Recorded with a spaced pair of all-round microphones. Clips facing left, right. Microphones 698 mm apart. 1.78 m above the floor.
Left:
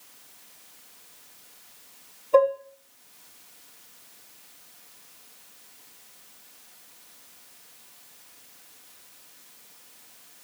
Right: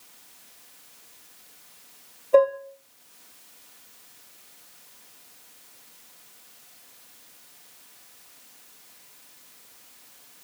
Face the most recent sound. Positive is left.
turn(degrees=-25)  # may be behind; listen again after turning